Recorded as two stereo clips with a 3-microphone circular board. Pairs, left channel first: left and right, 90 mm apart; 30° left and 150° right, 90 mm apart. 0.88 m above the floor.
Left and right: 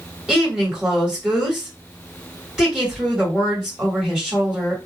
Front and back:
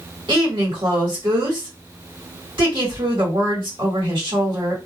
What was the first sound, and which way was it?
A woman speaking, 175° right.